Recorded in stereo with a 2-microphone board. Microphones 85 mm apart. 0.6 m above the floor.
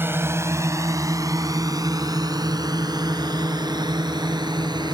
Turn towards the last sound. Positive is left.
turn(degrees=-55)  # may be behind; listen again after turning